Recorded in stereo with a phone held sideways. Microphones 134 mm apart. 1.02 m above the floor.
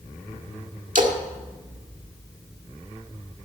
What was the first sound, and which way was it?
A splash, 65° right (ahead or behind).